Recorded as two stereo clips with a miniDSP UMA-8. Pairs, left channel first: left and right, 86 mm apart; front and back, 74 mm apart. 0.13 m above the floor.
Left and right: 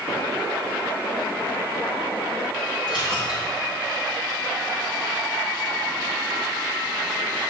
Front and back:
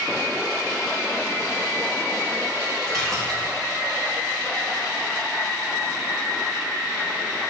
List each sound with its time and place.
2.9 s a splash: 80° left, 2.5 m